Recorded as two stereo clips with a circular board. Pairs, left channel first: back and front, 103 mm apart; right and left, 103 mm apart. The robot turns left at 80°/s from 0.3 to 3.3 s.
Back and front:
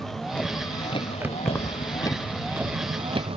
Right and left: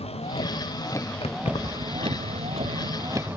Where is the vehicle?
95° right; by 3.4 s 20° left.